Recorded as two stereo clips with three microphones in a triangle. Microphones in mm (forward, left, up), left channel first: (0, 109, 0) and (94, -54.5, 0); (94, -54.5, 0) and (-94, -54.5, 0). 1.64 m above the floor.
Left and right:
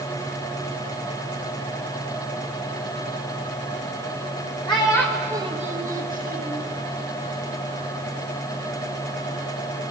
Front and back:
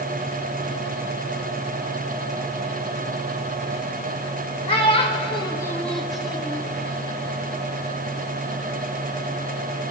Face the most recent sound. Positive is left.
turn(degrees=-95)